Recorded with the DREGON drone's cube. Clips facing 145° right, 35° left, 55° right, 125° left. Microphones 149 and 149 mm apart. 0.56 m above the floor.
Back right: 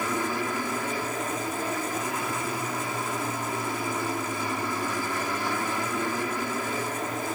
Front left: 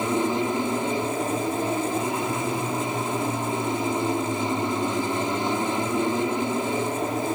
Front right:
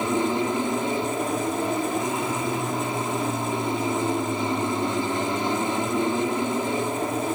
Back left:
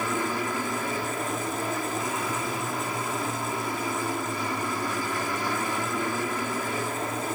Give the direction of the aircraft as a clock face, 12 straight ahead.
12 o'clock.